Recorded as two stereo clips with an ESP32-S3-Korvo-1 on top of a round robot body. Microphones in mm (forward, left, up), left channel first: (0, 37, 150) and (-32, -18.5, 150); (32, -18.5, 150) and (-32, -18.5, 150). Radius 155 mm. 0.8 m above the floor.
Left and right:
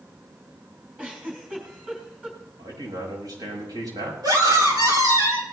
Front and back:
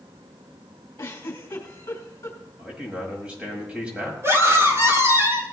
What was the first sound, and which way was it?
A giggle, 50° right.